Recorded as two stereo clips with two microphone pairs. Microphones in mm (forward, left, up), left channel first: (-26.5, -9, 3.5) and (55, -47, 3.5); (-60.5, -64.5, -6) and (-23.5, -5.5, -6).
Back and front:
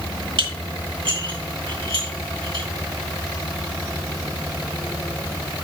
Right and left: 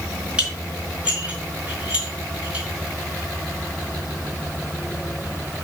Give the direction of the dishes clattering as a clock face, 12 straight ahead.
12 o'clock.